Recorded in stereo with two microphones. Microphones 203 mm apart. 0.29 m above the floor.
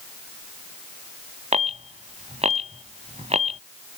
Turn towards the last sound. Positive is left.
turn(degrees=-30)  # may be behind; listen again after turning